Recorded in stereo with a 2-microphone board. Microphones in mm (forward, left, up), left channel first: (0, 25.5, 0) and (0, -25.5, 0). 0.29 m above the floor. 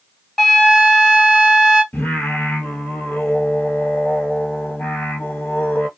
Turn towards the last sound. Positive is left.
turn(degrees=40)  # may be behind; listen again after turning